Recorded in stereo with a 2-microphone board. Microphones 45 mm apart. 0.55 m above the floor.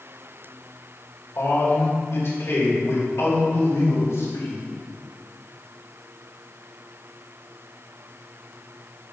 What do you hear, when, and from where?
1.4 s a man speaking: 60° left (ahead or behind), 2.5 m; by 4.6 s 70° left (ahead or behind), 4 m